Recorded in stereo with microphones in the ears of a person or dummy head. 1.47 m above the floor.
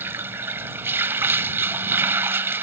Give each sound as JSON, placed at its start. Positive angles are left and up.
{"t": 0.0, "sound": "running water", "side_deg": -15}